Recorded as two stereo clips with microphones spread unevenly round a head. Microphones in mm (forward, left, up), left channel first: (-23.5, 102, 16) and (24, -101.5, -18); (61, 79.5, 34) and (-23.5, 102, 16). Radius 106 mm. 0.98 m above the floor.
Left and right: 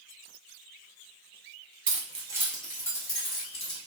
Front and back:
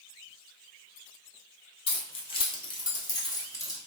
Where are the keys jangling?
25° right, 0.6 m; by 3.8 s 40° left, 1.1 m.